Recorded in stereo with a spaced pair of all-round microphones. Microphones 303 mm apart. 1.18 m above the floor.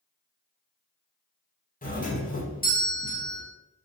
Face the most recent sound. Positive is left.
turn(degrees=25)  # may be behind; listen again after turning